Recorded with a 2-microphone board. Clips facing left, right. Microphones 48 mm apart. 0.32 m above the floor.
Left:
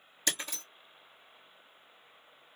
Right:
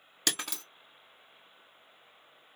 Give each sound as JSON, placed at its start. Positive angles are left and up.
{"t": 0.3, "sound": "breaking glass", "side_deg": -70, "distance_m": 2.5}